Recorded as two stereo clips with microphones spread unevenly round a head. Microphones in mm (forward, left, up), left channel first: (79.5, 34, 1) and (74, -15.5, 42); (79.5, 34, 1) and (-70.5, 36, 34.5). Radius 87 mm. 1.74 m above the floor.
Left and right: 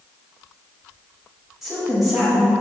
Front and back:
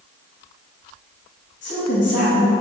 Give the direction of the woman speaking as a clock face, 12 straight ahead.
1 o'clock.